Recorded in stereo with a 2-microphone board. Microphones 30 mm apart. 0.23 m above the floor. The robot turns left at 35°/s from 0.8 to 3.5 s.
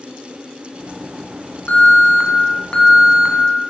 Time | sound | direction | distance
1.7 | an alarm | 85° left | 1.8 m